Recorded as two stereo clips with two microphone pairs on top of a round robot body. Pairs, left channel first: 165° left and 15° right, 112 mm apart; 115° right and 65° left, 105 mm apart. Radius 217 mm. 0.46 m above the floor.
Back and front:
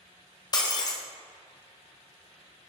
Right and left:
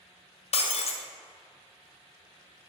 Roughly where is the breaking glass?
Behind right.